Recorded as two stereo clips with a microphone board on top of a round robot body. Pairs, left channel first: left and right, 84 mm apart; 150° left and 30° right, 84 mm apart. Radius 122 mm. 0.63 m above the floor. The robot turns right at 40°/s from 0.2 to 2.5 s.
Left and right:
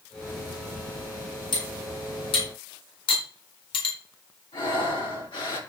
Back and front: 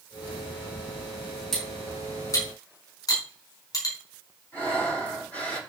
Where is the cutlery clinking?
60° left, 4 m; by 4.0 s 100° left, 4 m.